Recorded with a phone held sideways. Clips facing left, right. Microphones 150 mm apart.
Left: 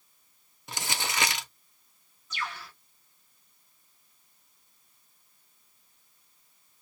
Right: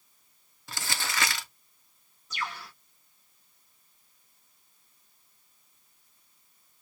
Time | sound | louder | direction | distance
0.7 | crumpling | left 1 dB | 20° left (ahead or behind) | 0.6 m
2.3 | a bird | right 1 dB | 40° right (ahead or behind) | 1.6 m